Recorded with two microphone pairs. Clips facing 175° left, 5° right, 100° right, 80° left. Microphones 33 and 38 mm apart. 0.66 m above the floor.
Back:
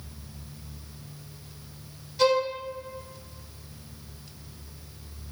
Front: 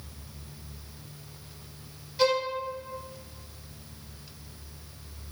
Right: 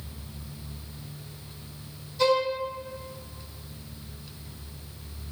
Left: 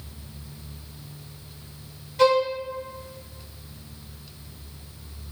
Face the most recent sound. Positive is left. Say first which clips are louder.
# back 2 dB, left 4 dB
turn(degrees=65)